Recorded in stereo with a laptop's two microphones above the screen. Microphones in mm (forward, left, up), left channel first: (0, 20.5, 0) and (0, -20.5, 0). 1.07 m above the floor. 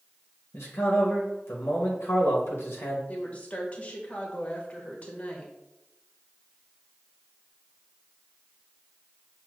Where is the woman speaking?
35° left (ahead or behind), 1.1 m.